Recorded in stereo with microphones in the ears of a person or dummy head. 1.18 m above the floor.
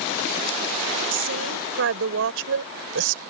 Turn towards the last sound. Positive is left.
turn(degrees=-70)  # may be behind; listen again after turning